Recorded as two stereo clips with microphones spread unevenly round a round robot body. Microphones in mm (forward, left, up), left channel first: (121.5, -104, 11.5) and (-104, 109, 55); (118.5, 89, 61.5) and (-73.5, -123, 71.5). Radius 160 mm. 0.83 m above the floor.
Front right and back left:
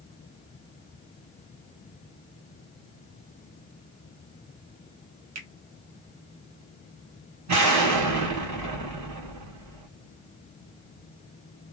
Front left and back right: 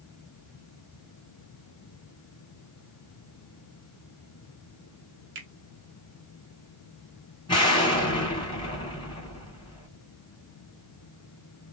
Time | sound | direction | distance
5.3 | a finger snap | straight behind | 0.9 m
7.5 | an explosion | 115° left | 1.4 m